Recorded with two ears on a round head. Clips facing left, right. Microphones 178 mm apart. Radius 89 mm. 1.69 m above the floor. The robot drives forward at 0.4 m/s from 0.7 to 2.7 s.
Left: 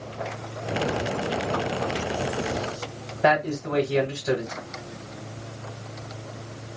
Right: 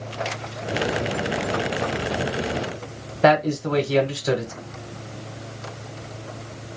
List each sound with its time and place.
3.2 s a man speaking: 55° right (ahead or behind), 1.0 m